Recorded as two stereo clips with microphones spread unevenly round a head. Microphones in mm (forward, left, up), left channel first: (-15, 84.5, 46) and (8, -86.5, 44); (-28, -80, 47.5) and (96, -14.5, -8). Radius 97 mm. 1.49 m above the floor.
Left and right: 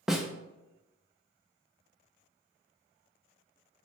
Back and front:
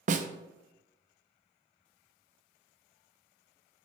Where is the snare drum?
5° left, 0.5 m.